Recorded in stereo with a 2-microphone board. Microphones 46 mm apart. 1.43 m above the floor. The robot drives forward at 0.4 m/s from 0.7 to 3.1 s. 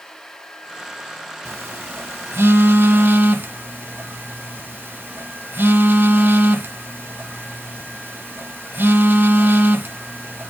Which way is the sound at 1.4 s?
55° right (ahead or behind).